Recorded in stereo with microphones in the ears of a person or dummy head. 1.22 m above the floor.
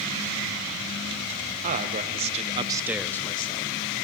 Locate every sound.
1.6 s a man speaking: 35° right (ahead or behind), 1.4 m; by 3.7 s 35° left (ahead or behind), 0.8 m